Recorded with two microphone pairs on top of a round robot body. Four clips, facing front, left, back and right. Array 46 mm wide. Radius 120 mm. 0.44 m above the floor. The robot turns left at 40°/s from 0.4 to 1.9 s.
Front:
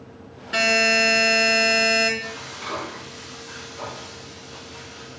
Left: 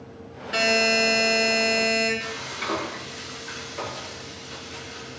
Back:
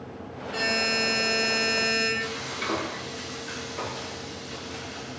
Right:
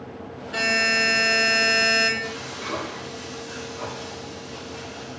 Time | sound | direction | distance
0.5 | a buzzer | 20° left | 5.5 m
2.2 | frying | 135° left | 7.5 m